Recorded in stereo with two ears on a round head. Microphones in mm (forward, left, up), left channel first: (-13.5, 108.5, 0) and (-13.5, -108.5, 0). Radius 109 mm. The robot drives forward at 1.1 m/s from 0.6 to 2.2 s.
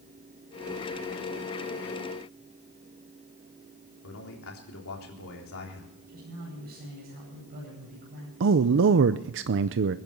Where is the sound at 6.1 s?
40° right (ahead or behind), 9.5 m.